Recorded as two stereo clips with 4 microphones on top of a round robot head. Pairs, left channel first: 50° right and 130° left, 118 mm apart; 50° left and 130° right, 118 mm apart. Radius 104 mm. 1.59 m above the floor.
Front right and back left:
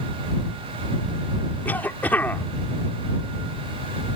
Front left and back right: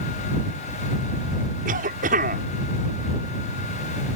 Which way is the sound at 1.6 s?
130° right.